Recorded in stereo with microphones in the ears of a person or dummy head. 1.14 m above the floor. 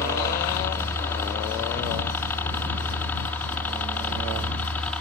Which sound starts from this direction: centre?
A helicopter, at 0.0 s.